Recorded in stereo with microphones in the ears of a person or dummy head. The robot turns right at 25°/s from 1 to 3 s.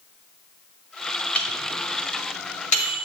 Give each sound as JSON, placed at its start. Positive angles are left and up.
{"t": 1.4, "sound": "a microwave", "side_deg": 10, "distance_m": 2.5}